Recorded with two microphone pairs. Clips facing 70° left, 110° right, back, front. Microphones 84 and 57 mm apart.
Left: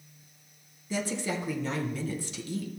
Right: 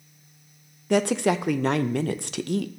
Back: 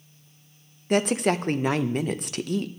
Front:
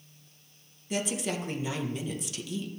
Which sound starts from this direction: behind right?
A woman speaking, at 0.9 s.